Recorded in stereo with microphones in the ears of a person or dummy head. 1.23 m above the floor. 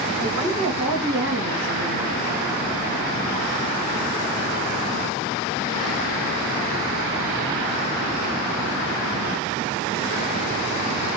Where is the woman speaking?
40° right (ahead or behind), 1.5 m; by 2.2 s 70° right (ahead or behind), 1.0 m.